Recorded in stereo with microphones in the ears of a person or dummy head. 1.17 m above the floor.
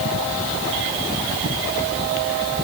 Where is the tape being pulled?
No tape being pulled in this recording.